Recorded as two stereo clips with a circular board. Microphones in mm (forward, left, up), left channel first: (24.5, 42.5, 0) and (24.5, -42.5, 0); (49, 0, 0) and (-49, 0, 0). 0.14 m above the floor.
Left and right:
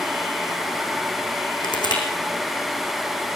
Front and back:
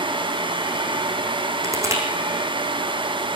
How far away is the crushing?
About 4.5 m.